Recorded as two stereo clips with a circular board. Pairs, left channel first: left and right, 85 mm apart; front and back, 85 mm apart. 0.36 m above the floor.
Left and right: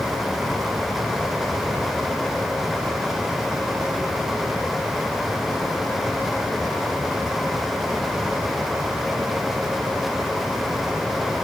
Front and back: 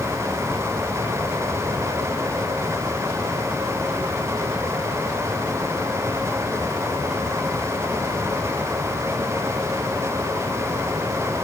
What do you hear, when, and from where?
Only background noise.